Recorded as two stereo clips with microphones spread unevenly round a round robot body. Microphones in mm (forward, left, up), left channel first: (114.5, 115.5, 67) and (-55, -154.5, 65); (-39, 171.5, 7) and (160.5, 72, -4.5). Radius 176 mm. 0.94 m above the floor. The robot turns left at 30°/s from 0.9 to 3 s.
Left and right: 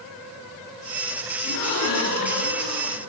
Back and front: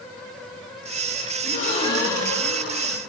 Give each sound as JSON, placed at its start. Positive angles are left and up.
{"t": 1.4, "sound": "a gasp", "azimuth_deg": 100, "distance_m": 1.7}